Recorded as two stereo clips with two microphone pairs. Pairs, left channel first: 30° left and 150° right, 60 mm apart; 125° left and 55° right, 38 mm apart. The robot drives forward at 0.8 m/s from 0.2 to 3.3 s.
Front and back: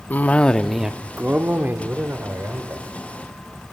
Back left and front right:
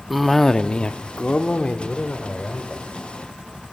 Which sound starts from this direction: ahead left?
A cough, at 0.1 s.